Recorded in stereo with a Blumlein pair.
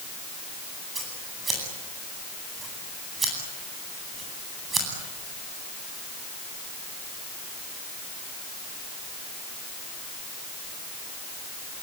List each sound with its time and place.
0.9 s scissors: 15° right, 9.5 m